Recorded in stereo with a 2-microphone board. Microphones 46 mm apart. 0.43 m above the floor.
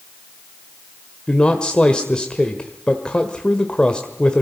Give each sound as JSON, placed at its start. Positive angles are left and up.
{"t": 1.3, "sound": "a man speaking", "side_deg": 20, "distance_m": 1.5}